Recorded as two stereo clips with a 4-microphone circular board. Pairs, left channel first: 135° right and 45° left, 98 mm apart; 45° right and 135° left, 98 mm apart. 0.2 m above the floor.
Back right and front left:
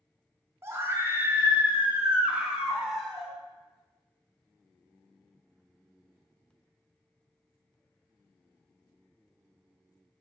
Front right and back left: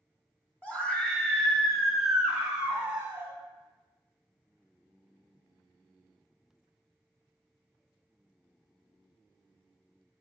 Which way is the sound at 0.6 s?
15° left.